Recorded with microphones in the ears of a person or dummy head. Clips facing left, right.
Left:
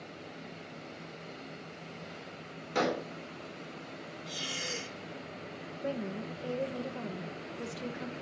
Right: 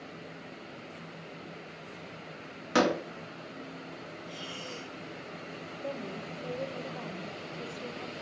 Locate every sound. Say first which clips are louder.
2.8 s a door slam: right 5 dB; 85° right, 2.5 m
4.3 s breathing: left 3 dB; 25° left (ahead or behind), 0.6 m
5.8 s a woman speaking: left 3 dB; 20° left (ahead or behind), 1.1 m